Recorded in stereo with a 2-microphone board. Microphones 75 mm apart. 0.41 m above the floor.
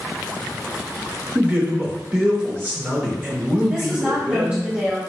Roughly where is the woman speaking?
Right.